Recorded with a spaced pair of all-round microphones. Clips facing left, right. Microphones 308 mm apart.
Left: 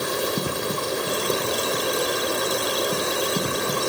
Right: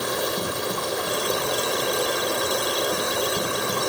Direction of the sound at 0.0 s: 35° left (ahead or behind).